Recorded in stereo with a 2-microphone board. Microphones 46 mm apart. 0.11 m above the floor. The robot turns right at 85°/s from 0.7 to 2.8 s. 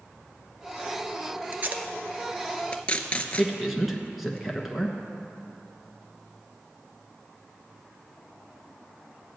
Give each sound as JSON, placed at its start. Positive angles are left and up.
{"t": 1.5, "sound": "tape being pulled", "side_deg": -45, "distance_m": 0.7}
{"t": 3.4, "sound": "a man speaking", "side_deg": 0, "distance_m": 1.2}